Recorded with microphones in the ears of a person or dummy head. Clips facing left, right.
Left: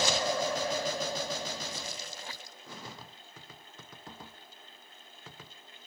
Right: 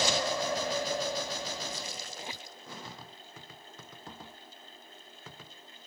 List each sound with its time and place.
2.1 s a squeak: 20° right (ahead or behind)